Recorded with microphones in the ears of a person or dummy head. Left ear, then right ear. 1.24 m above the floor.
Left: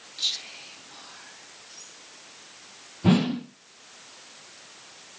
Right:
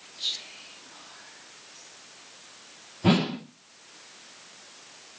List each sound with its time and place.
0.2 s whispering: 20° left (ahead or behind), 6 m
3.0 s a whoosh: 20° right (ahead or behind), 1.5 m